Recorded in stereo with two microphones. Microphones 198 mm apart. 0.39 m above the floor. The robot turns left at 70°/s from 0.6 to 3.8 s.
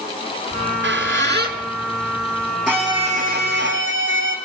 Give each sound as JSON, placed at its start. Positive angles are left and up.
{"t": 0.5, "sound": "a squeak", "side_deg": -60, "distance_m": 3.0}
{"t": 2.7, "sound": "a violin", "azimuth_deg": -5, "distance_m": 3.5}